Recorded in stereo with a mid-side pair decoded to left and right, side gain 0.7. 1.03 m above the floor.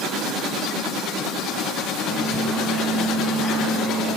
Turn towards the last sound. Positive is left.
turn(degrees=5)